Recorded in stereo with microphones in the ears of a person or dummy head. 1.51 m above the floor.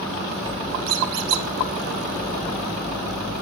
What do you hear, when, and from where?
0.9 s a squeak: 55° right (ahead or behind), 0.7 m